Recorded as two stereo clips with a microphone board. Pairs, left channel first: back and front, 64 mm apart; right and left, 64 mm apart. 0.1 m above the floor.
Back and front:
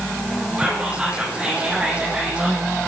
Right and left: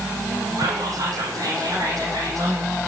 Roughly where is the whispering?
Left.